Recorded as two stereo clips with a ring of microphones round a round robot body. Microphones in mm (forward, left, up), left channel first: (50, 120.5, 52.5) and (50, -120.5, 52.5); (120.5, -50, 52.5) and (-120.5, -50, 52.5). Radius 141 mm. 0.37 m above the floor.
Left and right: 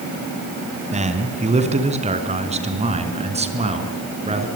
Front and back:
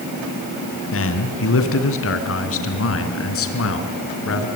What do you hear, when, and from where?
0.9 s a man speaking: 30° right, 4 m; by 4.5 s 25° right, 5.5 m